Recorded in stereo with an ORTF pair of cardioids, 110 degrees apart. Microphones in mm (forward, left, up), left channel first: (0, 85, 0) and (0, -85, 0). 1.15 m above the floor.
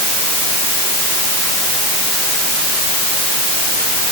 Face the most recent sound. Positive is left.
No sound to turn to.